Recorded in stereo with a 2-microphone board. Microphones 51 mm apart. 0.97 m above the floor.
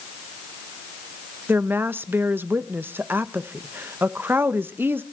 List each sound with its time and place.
1.5 s a woman speaking: 45° right (ahead or behind), 0.7 m